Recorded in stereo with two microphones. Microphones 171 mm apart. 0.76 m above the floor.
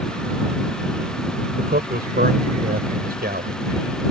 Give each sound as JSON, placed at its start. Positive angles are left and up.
{"t": 1.6, "sound": "a man speaking", "side_deg": -65}